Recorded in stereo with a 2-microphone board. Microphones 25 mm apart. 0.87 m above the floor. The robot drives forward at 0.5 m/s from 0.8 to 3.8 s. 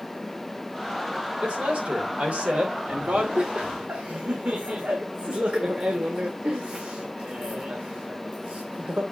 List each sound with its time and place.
1.4 s a man speaking: 65° right (ahead or behind), 2.5 m; by 3.3 s 80° right, 2 m
3.4 s laughter: 65° right (ahead or behind), 1.1 m; by 9.0 s 70° right (ahead or behind), 1.0 m